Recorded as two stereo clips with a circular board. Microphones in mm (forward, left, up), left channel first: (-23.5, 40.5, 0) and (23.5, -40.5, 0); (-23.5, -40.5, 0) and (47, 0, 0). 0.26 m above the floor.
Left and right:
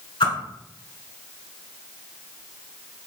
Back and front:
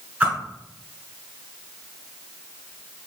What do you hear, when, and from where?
0.2 s a whoosh: 105° left, 1.5 m